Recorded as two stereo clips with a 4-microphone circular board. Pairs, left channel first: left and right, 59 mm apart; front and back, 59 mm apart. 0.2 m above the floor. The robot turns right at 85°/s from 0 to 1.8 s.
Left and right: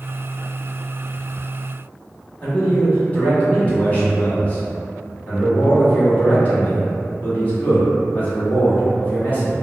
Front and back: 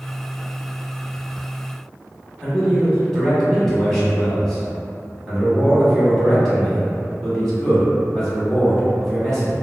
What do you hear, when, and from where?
2.4 s a man speaking: 80° left, 1.1 m